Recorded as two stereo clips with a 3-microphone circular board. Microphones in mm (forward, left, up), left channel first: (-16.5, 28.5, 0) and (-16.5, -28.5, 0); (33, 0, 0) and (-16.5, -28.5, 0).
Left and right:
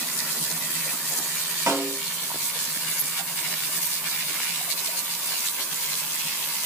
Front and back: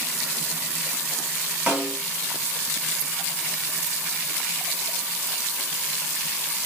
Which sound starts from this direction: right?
A snare drum, at 1.7 s.